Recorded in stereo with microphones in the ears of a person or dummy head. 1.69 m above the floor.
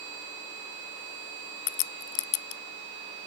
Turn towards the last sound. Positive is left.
turn(degrees=70)  # may be behind; listen again after turning